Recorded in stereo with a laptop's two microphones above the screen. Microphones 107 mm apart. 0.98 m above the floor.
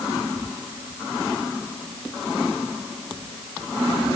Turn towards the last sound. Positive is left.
No sound to turn to.